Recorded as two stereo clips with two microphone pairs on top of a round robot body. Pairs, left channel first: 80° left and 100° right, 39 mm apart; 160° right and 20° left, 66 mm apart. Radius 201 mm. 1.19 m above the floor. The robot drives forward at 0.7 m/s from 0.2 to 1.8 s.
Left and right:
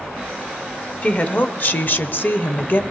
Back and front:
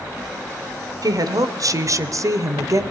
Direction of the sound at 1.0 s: 30° left.